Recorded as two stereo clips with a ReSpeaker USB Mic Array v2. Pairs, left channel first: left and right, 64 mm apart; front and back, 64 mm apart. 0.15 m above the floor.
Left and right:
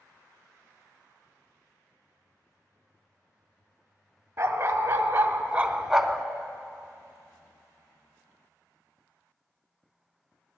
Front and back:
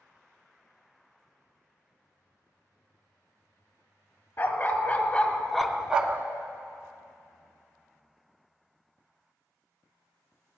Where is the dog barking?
45° right, 1.1 m; by 6.2 s 175° left, 0.6 m.